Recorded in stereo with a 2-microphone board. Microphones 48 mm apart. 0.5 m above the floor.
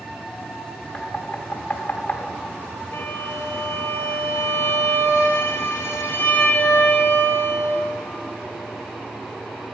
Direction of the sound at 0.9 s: 30° left (ahead or behind).